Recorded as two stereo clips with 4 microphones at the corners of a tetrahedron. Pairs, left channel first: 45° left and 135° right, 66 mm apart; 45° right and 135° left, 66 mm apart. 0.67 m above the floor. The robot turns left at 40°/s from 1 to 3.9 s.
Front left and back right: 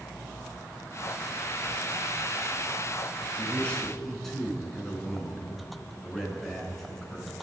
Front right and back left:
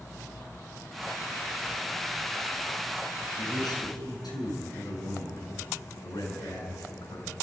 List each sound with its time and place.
3.4 s a man speaking: 20° right, 7 m; by 7.4 s 45° right, 7 m